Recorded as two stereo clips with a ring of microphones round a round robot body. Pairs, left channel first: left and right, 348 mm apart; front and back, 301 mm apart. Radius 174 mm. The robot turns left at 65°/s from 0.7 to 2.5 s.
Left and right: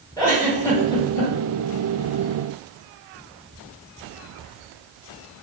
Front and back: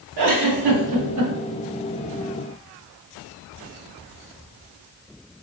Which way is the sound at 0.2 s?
170° left.